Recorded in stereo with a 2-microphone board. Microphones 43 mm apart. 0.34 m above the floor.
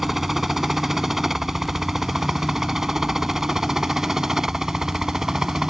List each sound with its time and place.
0.0 s a helicopter: 5° right (ahead or behind); by 5.7 s 15° right (ahead or behind)